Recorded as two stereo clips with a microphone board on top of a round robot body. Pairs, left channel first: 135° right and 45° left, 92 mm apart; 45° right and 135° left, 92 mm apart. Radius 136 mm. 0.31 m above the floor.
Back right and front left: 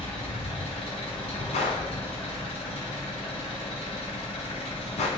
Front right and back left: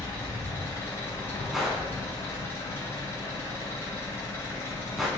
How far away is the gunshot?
About 0.6 m.